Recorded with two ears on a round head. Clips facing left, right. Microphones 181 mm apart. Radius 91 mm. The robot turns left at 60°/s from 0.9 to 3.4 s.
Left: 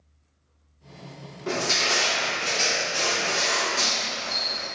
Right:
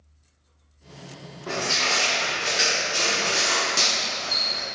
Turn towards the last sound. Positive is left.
turn(degrees=-65)